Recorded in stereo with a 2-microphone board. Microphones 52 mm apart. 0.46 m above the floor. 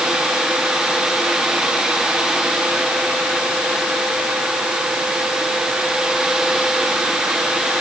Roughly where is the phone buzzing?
No phone buzzing in this recording.